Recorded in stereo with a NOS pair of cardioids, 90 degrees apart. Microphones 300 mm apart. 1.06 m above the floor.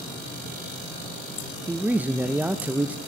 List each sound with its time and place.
1.7 s a man speaking: 5° right, 0.5 m